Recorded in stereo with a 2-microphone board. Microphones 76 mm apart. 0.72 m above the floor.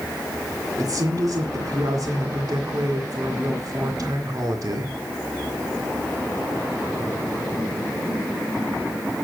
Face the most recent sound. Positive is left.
turn(degrees=-55)  # may be behind; listen again after turning